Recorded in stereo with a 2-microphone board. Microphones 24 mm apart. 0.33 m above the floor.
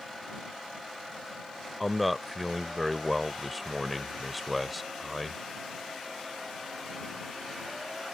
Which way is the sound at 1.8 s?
Centre (ahead or behind).